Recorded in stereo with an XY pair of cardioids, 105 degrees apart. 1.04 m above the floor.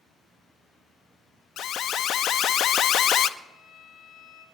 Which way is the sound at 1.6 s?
70° left.